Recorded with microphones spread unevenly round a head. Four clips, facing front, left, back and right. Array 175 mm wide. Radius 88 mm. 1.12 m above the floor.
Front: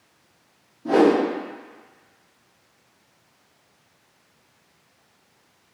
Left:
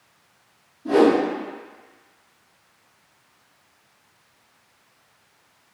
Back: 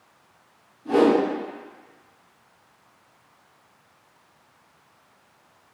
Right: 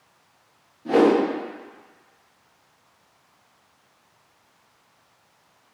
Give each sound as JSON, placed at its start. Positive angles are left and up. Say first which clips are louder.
{"t": 0.8, "sound": "a whoosh", "louder": "left 1 dB, front 1 dB", "azimuth_deg": 5, "distance_m": 1.1}